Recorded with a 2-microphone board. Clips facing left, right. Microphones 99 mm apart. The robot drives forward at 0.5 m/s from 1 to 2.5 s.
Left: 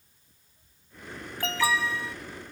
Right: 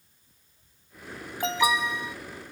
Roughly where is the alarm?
Centre.